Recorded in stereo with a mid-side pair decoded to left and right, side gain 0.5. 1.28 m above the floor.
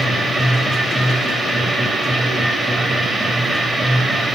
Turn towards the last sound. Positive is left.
turn(degrees=-15)